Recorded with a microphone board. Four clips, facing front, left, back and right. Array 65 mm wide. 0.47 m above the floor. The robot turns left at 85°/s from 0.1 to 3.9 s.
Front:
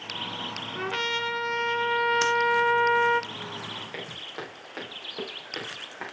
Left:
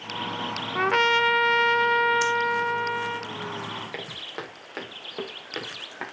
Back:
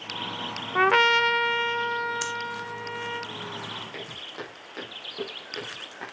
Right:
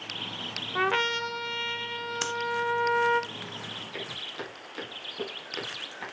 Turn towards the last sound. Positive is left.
turn(degrees=75)